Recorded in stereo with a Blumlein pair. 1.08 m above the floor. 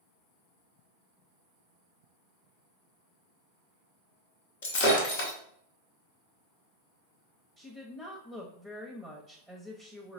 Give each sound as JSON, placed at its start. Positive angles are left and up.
{"t": 4.6, "sound": "breaking glass", "azimuth_deg": 55, "distance_m": 1.4}
{"t": 7.6, "sound": "a woman speaking", "azimuth_deg": 5, "distance_m": 0.8}